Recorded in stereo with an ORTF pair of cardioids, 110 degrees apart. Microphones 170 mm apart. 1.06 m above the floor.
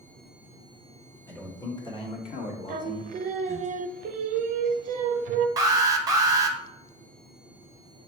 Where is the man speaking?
15° left, 1.4 m; by 3.7 s 80° left, 1.4 m.